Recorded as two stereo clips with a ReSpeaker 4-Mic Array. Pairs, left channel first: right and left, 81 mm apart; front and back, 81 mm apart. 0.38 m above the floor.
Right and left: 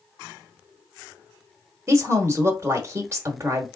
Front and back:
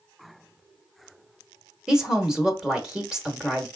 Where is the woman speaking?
105° left, 0.9 m.